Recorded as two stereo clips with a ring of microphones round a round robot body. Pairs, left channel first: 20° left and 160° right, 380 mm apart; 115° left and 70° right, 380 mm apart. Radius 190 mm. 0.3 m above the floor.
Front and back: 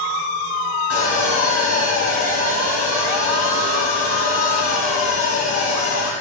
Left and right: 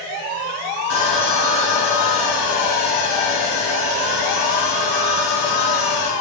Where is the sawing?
90° left, 1.4 m.